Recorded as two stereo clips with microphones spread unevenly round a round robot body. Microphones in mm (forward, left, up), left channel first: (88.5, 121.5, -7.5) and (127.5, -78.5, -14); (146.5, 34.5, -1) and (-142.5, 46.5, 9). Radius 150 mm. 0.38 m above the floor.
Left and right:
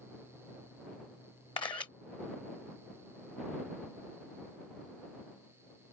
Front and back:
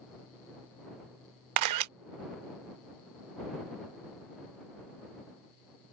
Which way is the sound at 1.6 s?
170° left.